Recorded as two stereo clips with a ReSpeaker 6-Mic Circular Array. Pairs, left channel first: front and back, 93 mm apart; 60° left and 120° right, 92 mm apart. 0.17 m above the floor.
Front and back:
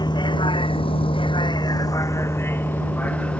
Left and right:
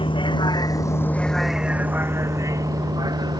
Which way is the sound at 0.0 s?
40° left.